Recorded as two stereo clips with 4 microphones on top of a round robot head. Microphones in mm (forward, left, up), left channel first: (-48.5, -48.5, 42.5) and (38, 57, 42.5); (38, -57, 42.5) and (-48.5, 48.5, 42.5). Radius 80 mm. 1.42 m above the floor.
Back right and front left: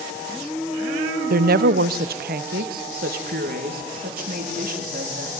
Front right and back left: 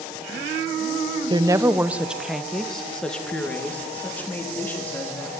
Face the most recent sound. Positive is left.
turn(degrees=25)